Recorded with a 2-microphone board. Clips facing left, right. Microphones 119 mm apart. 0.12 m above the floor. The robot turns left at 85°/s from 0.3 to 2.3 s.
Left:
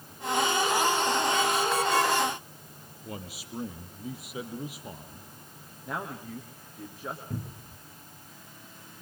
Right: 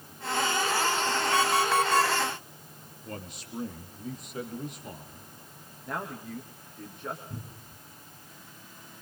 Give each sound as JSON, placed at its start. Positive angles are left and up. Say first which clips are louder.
{"t": 1.3, "sound": "an alarm clock", "louder": "right 2 dB", "azimuth_deg": -80, "distance_m": 3.0}
{"t": 3.0, "sound": "a man speaking", "louder": "even", "side_deg": 5, "distance_m": 4.0}
{"t": 5.8, "sound": "a man speaking", "louder": "even", "side_deg": 5, "distance_m": 4.5}
{"t": 7.3, "sound": "a cupboard door", "louder": "left 5 dB", "side_deg": 75, "distance_m": 3.5}